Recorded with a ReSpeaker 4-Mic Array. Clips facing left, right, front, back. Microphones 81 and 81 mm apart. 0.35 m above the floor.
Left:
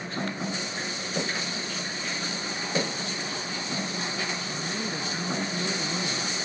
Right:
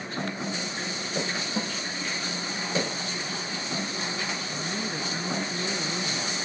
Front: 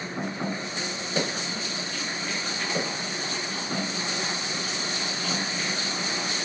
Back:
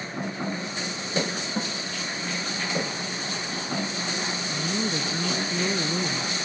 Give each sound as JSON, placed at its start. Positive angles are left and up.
{"t": 1.6, "sound": "a snare drum", "azimuth_deg": -125}
{"t": 4.5, "sound": "a woman speaking", "azimuth_deg": -175}